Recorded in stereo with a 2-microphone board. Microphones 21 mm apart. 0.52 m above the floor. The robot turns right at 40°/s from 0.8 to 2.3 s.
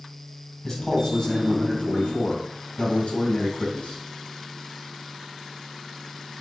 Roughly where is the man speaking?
Ahead left.